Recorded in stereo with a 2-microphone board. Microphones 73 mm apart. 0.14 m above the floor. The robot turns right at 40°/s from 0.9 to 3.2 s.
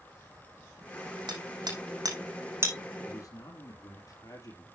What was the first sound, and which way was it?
Hammering, 80° right.